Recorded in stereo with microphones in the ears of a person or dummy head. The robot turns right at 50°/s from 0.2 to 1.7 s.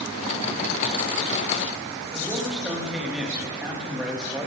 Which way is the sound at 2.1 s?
Centre (ahead or behind).